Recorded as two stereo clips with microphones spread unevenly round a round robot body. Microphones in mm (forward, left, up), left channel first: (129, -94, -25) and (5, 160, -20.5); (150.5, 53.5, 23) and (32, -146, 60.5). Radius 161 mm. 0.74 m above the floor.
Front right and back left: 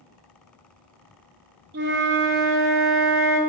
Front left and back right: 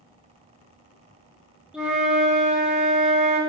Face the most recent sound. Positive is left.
turn(degrees=140)